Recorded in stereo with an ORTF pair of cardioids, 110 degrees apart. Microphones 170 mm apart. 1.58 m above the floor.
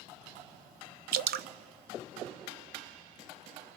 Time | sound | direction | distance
1.1 | dripping | 65° right | 0.7 m